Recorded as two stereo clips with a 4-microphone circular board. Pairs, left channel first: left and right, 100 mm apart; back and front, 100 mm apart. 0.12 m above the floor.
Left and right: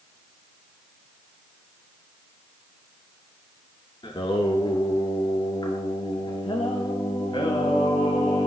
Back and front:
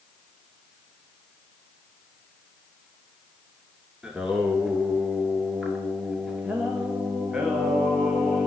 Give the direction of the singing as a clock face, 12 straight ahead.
9 o'clock.